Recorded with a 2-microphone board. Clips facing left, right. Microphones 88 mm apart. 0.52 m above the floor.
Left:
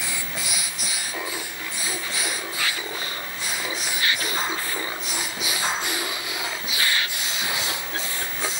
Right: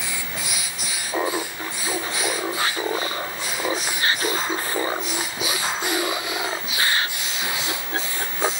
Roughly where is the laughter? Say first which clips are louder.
Right 12 dB; right.